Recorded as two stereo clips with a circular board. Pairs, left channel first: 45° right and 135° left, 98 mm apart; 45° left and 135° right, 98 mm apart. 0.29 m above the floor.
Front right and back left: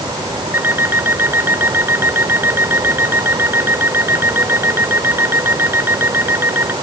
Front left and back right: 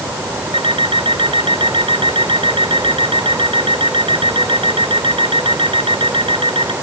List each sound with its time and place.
0.5 s an alarm clock: 155° right